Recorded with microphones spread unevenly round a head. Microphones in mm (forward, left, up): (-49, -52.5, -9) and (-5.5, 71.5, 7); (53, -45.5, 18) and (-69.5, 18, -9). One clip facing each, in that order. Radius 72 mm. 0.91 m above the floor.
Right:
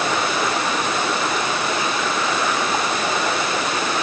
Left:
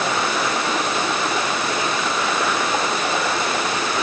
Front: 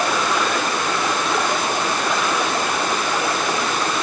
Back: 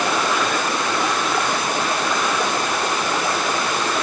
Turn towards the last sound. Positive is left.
No sound to turn to.